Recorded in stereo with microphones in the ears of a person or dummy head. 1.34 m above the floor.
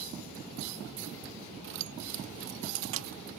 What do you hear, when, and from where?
1.6 s keys jangling: 55° right (ahead or behind); by 3.2 s 70° right (ahead or behind)